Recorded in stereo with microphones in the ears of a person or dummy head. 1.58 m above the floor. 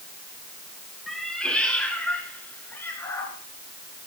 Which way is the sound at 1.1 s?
Centre (ahead or behind).